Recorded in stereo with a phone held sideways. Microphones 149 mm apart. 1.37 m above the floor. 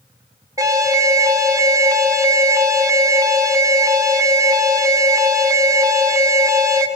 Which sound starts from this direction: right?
An alarm, at 0.6 s.